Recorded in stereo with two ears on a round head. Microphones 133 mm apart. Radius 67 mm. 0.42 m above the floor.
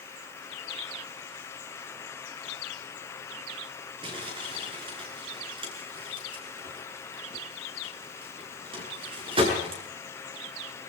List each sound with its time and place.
4.0 s crumpling: 35° right (ahead or behind), 6.5 m